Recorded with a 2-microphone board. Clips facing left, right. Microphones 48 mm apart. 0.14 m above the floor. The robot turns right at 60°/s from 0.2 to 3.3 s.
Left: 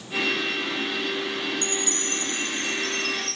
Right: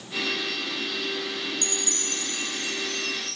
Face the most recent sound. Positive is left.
turn(degrees=120)